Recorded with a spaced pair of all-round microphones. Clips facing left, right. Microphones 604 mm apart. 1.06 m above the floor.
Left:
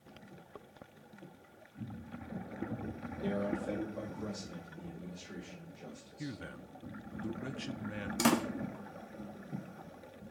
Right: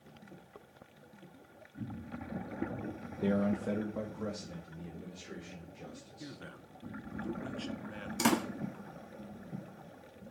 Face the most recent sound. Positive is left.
turn(degrees=5)  # may be behind; listen again after turning